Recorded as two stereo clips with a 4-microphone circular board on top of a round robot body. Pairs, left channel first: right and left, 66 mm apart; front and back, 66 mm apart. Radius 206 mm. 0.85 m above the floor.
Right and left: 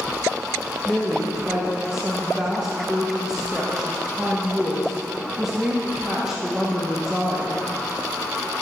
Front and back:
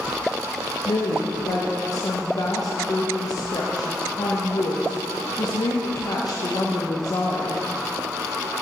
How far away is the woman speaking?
About 1.3 m.